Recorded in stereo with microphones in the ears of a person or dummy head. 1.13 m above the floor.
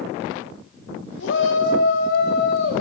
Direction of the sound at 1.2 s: 60° left (ahead or behind).